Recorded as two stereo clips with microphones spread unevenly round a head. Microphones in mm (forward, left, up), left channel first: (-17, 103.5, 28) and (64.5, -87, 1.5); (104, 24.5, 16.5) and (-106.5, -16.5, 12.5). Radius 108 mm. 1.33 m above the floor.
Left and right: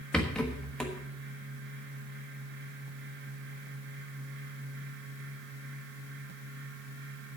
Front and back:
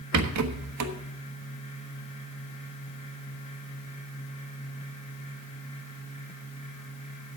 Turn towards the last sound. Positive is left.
turn(degrees=-165)